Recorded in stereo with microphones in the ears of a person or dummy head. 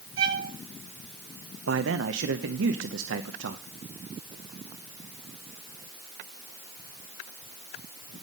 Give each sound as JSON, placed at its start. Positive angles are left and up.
{"t": 0.2, "sound": "a violin", "side_deg": -55, "distance_m": 7.0}
{"t": 1.7, "sound": "a man speaking", "side_deg": -70, "distance_m": 0.7}